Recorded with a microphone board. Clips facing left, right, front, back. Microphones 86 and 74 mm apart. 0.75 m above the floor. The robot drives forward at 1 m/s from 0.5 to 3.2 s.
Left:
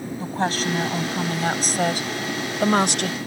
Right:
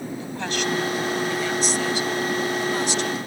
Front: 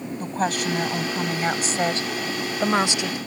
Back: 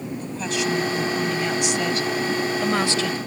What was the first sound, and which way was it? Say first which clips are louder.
A woman speaking: left 4 dB, front 2 dB; 40° left.